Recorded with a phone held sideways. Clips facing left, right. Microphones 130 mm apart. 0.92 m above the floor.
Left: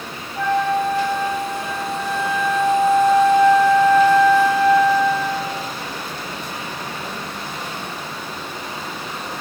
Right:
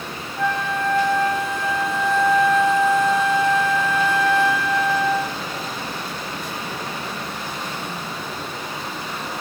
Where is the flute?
75° left (ahead or behind), 1.3 m.